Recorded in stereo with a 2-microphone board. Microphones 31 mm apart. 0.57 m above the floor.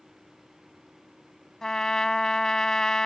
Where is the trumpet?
20° left (ahead or behind).